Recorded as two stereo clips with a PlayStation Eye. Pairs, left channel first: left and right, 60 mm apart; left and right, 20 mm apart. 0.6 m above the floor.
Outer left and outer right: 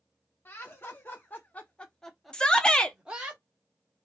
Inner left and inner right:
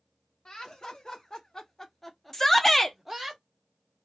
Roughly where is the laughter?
Left.